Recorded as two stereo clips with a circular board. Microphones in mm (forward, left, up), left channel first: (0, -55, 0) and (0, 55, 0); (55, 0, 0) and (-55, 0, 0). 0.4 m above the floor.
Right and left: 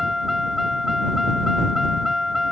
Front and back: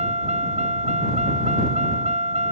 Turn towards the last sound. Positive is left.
turn(degrees=180)